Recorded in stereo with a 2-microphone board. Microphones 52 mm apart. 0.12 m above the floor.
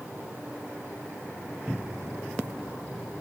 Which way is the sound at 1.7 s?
25° right (ahead or behind).